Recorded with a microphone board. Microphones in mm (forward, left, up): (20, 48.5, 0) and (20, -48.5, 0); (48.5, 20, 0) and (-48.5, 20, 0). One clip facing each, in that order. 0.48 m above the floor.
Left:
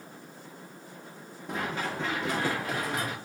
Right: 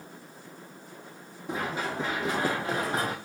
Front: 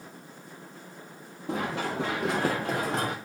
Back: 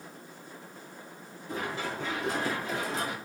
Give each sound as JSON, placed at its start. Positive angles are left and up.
{"t": 1.5, "sound": "running footsteps", "azimuth_deg": -5, "distance_m": 4.0}